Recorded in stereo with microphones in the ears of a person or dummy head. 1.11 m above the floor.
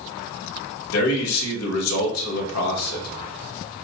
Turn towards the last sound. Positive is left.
turn(degrees=80)